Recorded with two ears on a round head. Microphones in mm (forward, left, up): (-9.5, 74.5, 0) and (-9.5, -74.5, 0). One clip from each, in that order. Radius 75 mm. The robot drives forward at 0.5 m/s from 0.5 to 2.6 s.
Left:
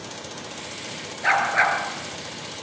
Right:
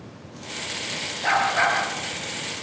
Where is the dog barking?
80° left, 7 m.